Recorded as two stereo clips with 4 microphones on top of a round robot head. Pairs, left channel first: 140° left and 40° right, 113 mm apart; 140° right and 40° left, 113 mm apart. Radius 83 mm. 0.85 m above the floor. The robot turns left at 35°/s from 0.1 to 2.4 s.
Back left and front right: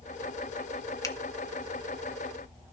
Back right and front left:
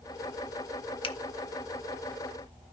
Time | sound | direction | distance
1.0 | a finger snap | 165° right | 1.0 m